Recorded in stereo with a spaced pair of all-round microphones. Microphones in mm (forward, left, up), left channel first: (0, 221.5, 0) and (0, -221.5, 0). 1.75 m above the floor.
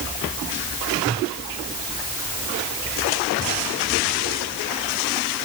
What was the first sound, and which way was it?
Only background noise.